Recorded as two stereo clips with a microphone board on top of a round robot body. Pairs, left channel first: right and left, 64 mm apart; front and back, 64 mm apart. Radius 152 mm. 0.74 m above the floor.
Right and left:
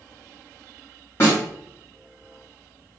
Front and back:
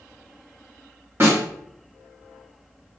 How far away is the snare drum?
About 2 m.